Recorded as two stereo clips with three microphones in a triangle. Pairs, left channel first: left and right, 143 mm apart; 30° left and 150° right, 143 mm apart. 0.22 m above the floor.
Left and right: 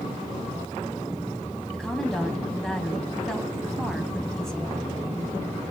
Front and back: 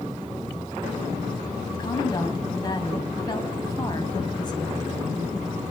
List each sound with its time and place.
1.7 s a woman speaking: 5° left, 1.3 m